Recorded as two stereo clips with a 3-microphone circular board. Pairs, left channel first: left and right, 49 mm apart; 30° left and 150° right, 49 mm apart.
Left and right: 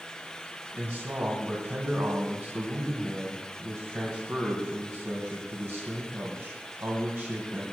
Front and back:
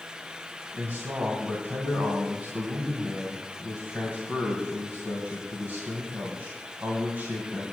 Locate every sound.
0.7 s a man speaking: 115° right, 2.5 m